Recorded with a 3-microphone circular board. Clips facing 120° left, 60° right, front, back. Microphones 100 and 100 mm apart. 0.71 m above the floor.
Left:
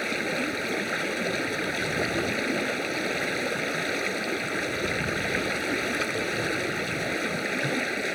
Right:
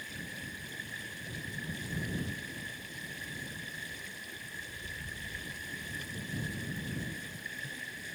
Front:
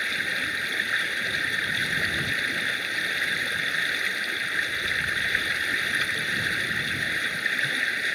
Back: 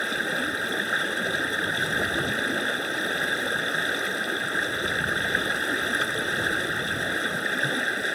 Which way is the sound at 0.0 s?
125° left.